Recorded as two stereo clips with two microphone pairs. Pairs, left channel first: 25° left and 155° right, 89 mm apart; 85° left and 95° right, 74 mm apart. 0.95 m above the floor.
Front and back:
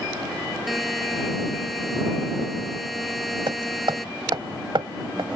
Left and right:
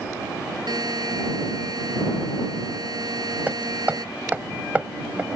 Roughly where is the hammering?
Behind.